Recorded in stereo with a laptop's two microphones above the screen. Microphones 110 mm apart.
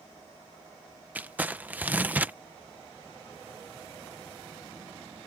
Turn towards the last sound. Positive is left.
turn(degrees=-15)  # may be behind; listen again after turning